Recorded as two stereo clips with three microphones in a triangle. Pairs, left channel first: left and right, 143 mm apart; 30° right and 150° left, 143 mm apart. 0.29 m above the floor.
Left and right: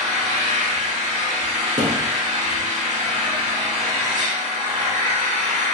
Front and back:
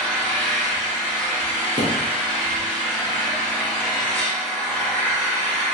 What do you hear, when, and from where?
0.0 s an engine running: 105° right, 1.0 m
1.8 s a thud: 75° right, 0.8 m